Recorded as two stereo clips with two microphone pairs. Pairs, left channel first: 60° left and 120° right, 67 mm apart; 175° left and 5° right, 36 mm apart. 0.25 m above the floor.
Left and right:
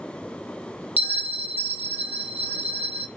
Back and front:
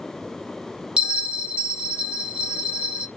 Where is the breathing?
No breathing in this recording.